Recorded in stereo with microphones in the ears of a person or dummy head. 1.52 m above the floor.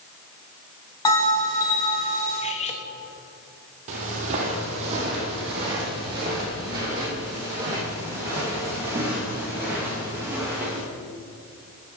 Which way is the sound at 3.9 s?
45° right (ahead or behind).